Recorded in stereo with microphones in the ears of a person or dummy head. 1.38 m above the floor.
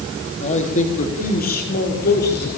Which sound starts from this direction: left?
A man speaking, at 0.4 s.